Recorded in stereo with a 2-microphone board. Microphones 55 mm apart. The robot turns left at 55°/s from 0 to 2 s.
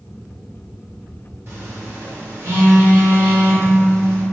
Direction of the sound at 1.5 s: 50° right (ahead or behind).